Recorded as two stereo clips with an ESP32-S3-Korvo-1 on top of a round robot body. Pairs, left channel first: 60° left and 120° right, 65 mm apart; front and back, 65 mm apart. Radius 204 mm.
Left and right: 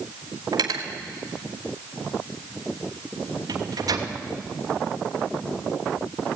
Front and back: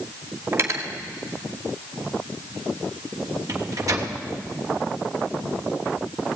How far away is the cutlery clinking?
About 2.5 m.